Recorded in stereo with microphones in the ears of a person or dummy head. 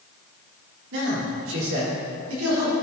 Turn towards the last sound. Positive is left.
turn(degrees=-85)